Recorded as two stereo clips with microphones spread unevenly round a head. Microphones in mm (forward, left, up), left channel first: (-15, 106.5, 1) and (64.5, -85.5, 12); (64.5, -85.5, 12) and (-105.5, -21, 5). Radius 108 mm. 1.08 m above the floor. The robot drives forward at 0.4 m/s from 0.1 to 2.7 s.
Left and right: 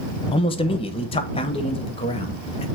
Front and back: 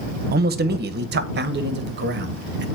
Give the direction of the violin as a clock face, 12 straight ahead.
No violin in this recording.